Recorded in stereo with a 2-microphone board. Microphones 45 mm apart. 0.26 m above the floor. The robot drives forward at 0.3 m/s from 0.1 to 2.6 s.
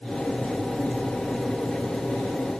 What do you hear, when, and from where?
Only background noise.